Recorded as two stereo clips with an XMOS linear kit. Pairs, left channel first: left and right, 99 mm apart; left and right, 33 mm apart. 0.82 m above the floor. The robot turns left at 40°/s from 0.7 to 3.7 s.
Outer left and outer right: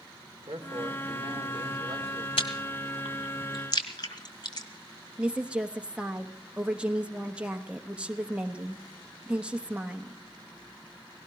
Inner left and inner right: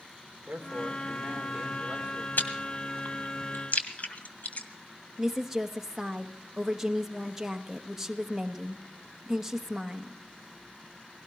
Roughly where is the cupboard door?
No cupboard door in this recording.